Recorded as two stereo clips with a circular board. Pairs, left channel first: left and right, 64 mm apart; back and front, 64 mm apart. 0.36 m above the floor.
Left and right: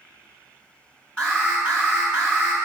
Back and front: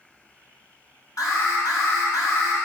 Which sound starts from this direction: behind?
An alarm, at 1.2 s.